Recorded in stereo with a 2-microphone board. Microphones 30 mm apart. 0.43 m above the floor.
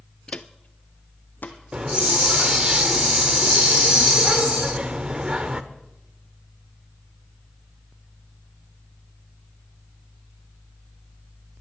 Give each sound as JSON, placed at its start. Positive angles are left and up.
{"t": 0.3, "sound": "footsteps", "side_deg": 35, "distance_m": 0.5}
{"t": 1.7, "sound": "a hiss", "side_deg": -35, "distance_m": 0.8}